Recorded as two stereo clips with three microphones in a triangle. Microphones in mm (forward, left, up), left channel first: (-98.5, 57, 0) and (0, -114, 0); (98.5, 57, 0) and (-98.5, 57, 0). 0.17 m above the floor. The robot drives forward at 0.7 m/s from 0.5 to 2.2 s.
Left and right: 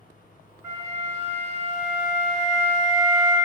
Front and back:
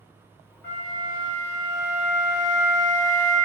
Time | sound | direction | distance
0.6 | a flute | 75° left | 1.5 m